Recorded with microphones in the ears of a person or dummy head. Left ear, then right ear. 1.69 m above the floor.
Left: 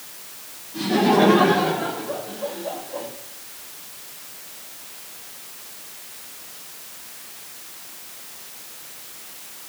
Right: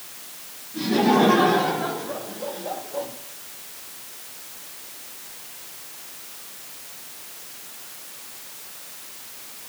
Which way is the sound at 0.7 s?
30° left (ahead or behind).